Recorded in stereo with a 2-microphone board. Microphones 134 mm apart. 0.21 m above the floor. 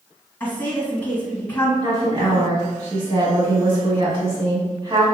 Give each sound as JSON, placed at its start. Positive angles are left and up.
{"t": 0.4, "sound": "a woman speaking", "side_deg": 15, "distance_m": 1.7}
{"t": 1.8, "sound": "a woman speaking", "side_deg": -40, "distance_m": 1.5}